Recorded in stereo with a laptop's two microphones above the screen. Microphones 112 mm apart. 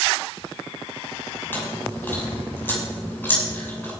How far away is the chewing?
About 7.5 m.